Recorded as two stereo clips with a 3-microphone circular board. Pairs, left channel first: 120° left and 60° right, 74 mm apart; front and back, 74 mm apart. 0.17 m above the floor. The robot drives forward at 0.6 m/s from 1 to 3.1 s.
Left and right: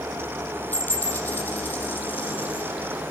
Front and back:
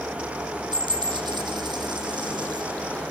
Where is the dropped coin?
175° right, 2.0 m.